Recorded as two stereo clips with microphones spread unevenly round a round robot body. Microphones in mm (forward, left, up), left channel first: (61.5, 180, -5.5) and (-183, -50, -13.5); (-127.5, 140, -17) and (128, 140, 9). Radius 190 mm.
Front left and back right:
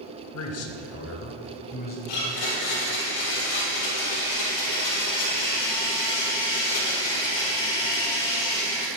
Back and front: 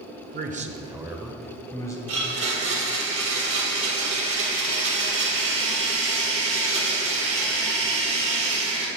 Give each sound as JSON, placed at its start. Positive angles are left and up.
{"t": 0.3, "sound": "a man speaking", "azimuth_deg": 40, "distance_m": 0.9}
{"t": 2.1, "sound": "a blender", "azimuth_deg": 30, "distance_m": 3.5}